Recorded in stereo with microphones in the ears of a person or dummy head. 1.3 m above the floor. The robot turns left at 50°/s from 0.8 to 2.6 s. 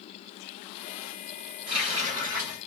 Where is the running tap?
130° right, 0.9 m; by 2.6 s 175° right, 0.9 m.